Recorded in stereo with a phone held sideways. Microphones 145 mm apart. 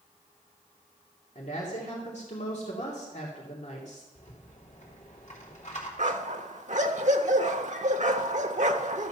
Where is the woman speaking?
55° left (ahead or behind), 2.5 m.